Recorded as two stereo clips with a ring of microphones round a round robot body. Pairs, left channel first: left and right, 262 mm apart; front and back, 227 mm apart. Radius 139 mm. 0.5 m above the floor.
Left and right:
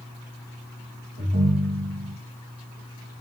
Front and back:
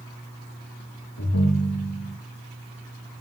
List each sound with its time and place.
1.2 s a ringtone: 45° right, 9 m